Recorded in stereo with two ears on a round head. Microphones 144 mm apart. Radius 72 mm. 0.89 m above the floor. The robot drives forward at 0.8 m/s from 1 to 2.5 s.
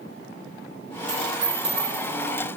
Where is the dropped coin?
45° right (ahead or behind), 5.5 m; by 2.4 s 40° right (ahead or behind), 6.5 m.